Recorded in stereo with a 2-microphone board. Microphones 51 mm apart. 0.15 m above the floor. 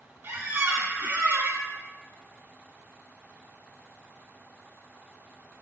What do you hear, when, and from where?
0.2 s a squeak: 50° right (ahead or behind), 0.6 m